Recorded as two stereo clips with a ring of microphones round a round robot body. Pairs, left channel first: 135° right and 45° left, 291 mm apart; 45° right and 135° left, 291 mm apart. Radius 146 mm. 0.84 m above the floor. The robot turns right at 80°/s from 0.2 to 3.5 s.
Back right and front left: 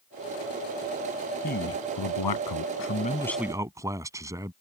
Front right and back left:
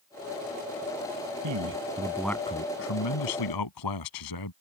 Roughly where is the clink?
I don't hear a clink.